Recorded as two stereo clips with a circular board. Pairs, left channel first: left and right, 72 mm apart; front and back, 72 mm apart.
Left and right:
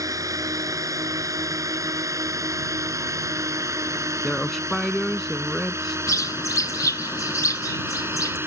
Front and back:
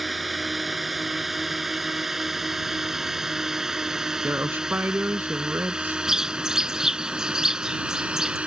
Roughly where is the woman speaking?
Behind.